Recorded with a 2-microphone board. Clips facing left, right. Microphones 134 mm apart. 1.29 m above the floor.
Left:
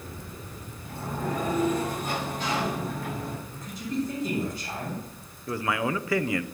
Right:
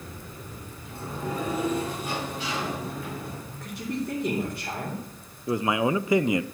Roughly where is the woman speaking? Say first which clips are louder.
Right 1 dB; right.